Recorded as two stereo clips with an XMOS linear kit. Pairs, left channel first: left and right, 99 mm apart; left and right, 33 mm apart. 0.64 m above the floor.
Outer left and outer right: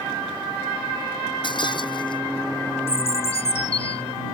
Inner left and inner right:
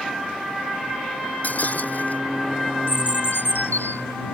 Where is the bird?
80° left.